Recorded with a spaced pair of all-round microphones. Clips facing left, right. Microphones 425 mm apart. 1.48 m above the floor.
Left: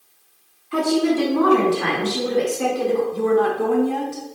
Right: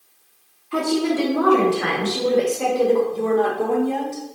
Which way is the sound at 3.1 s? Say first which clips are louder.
Left 1 dB; 25° left (ahead or behind).